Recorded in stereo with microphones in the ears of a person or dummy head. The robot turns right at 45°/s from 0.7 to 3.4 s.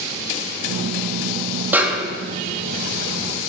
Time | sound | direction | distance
1.7 | a snare drum | 10° right (ahead or behind) | 2 m